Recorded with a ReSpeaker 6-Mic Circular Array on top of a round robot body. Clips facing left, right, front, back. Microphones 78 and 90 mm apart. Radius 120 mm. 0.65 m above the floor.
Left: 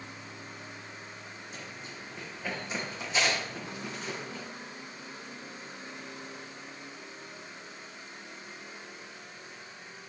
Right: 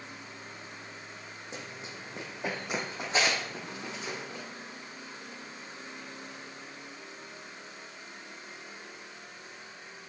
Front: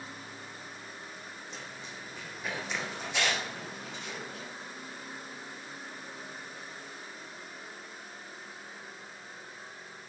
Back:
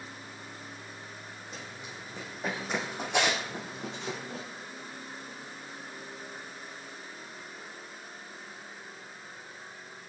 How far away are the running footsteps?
About 2 m.